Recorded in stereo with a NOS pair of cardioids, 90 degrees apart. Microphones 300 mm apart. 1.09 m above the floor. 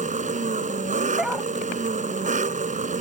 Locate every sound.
0.0 s an engine running: 25° right
1.2 s a dog barking: straight ahead